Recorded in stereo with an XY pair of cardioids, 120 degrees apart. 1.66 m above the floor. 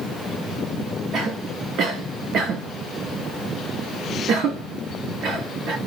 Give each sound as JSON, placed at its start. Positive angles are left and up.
{"t": 1.1, "sound": "a cough", "azimuth_deg": -65, "distance_m": 0.6}